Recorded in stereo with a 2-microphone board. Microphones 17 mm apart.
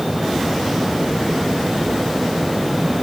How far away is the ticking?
I don't hear ticking.